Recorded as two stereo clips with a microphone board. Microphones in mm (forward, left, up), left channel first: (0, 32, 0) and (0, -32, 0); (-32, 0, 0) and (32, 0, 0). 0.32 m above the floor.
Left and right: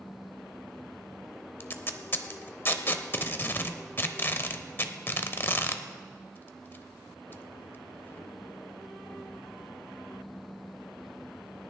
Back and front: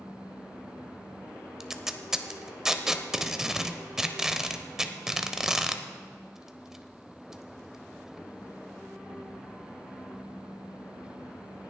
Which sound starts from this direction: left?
Tape being pulled, at 1.6 s.